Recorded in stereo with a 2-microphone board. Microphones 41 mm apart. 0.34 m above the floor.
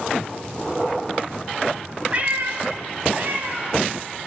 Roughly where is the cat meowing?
Right.